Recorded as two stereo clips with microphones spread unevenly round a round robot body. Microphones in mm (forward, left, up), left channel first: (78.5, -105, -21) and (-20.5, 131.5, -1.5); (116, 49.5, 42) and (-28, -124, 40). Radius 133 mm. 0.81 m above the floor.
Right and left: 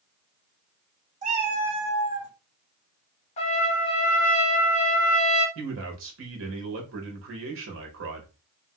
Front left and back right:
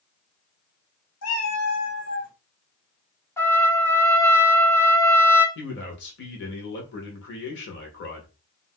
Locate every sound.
1.2 s a cat meowing: 55° left, 1.3 m; by 2.3 s 90° left, 1.5 m
3.4 s a trumpet: 25° right, 0.9 m
5.5 s a man speaking: 80° left, 1.1 m